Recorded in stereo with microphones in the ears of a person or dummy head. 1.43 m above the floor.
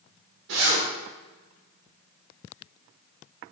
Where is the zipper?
65° right (ahead or behind), 2.5 m.